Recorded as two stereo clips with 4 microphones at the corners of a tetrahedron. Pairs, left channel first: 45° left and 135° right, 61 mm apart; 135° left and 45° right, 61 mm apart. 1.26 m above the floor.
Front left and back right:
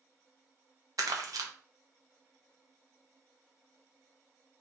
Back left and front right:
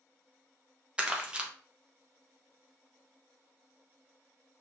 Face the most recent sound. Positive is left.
turn(degrees=-120)